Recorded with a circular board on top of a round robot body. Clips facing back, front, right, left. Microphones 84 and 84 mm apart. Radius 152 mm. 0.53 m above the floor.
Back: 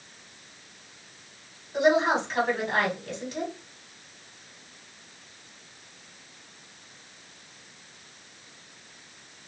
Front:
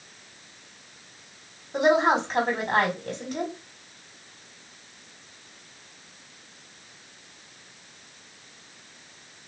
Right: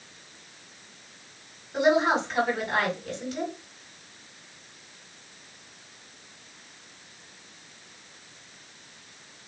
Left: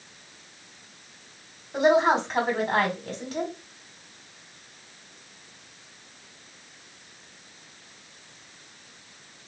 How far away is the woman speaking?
About 1.9 m.